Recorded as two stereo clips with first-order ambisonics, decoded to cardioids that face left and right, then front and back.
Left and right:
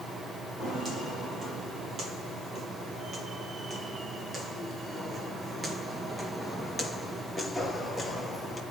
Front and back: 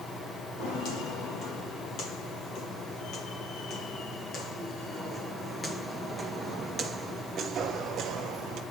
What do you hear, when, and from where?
0.6 s footsteps: 20° right, 3.5 m; by 8.6 s 170° left, 2 m